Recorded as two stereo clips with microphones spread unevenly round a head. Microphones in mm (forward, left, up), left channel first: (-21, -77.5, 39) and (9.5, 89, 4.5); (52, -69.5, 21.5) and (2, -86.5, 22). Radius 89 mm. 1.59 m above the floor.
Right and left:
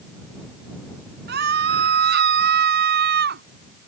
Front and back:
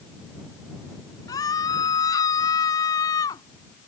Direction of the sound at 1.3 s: 45° left.